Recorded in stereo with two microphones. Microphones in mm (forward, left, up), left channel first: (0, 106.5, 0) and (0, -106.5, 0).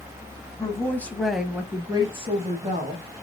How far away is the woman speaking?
About 1.1 m.